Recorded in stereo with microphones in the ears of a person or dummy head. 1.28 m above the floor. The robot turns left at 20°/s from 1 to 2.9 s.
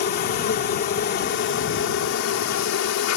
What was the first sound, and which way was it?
An insect, 130° left.